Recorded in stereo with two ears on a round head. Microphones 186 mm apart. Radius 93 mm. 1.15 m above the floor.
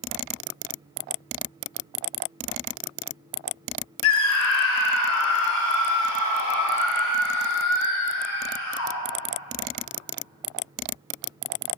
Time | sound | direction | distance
4.0 | a scream | 65° left (ahead or behind) | 3 m